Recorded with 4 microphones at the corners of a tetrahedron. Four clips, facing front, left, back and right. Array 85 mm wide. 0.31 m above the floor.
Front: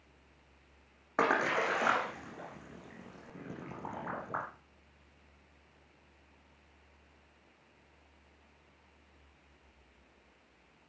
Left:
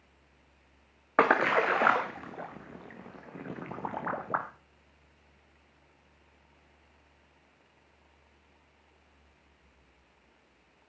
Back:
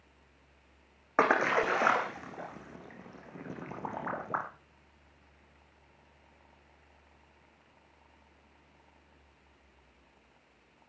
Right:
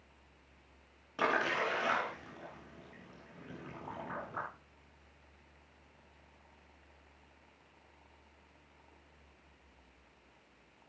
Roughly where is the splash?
Left.